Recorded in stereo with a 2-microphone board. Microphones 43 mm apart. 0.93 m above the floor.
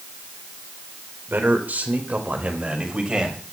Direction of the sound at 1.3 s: 55° right (ahead or behind).